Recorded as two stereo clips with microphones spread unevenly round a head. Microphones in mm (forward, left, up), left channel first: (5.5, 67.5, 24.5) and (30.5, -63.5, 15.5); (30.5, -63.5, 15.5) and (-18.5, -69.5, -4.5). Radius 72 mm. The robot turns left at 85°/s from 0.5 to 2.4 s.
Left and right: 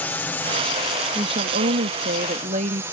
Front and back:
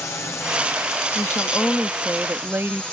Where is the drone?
35° left; by 2.9 s 90° right.